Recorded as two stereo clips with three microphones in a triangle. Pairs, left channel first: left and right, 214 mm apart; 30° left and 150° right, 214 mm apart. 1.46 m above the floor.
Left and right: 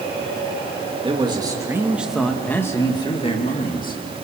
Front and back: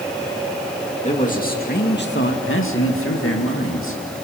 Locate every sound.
1.0 s a man speaking: 25° right, 2.5 m; by 4.0 s 45° left, 2.5 m